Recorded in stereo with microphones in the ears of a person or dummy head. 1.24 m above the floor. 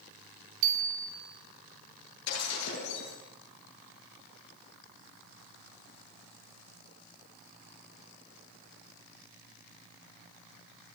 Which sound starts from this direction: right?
A bicycle bell, at 0.6 s.